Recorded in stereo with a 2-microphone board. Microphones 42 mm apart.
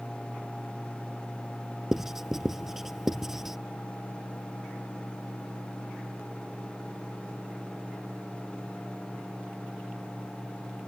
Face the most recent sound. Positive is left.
turn(degrees=-10)  # may be behind; listen again after turning